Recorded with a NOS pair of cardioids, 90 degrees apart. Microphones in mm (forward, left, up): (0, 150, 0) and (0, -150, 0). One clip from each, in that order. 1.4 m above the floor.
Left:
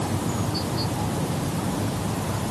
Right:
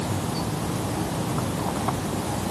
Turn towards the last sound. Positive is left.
No sound to turn to.